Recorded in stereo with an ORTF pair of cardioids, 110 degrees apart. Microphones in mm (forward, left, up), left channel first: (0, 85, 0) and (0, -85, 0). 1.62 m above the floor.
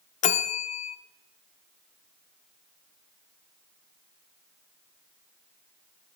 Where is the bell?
45° left, 0.5 m.